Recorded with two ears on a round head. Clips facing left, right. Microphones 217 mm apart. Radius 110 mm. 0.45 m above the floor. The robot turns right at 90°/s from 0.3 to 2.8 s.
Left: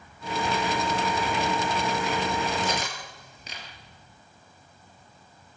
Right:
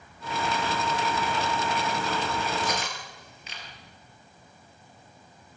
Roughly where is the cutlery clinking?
Centre.